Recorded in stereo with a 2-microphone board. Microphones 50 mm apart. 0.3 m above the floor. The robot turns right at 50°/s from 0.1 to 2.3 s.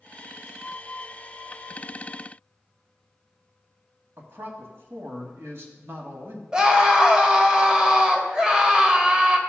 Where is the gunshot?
I don't hear a gunshot.